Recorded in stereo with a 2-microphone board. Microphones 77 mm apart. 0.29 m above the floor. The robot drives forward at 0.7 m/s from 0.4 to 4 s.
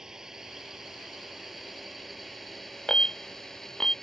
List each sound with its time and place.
0.0 s a drone: 10° right (ahead or behind); by 4.0 s 5° left (ahead or behind)
2.9 s an alarm: 10° left (ahead or behind); by 3.9 s 5° left (ahead or behind)